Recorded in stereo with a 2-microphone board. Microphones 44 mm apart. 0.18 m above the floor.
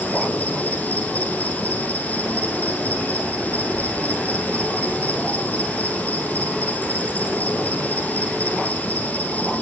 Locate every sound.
0.0 s an insect: 35° left (ahead or behind), 3.5 m